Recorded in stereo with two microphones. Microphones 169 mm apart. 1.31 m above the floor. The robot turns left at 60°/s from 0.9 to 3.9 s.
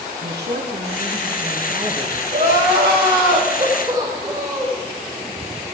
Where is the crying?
65° right, 4 m; by 4.8 s 160° right, 4 m.